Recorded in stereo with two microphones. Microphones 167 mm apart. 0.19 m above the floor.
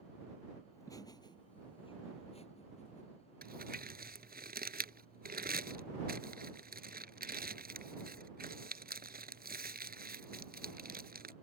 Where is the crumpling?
70° right (ahead or behind).